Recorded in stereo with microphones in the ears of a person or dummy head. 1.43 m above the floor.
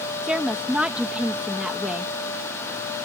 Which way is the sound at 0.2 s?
10° right (ahead or behind).